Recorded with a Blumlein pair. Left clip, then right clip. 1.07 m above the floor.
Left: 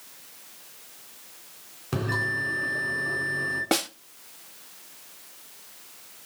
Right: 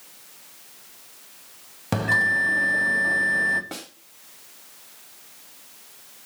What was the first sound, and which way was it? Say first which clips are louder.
A bell: right 7 dB; 50° right.